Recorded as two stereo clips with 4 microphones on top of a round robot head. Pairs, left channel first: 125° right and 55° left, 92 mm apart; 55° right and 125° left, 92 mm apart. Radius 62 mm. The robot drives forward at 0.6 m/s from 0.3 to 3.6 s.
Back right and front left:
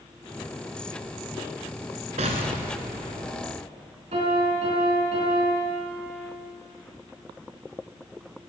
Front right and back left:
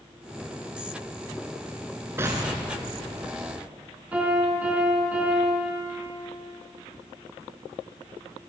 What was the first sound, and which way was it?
An explosion, 60° left.